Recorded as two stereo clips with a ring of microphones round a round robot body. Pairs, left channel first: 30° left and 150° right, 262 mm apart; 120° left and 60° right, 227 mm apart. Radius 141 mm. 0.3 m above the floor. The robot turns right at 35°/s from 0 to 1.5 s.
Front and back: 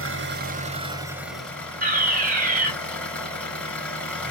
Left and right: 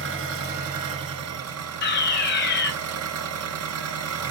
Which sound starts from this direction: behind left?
A fire alarm, at 1.8 s.